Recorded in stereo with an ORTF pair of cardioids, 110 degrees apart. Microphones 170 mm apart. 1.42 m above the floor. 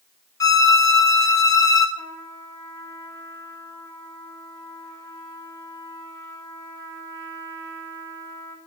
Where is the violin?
20° left, 0.7 m.